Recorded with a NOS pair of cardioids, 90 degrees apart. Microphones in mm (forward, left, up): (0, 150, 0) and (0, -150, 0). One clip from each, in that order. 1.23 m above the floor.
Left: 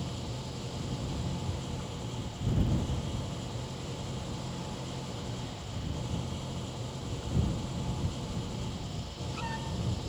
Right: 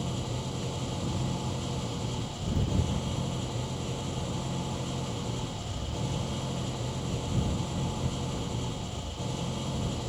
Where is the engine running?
40° right.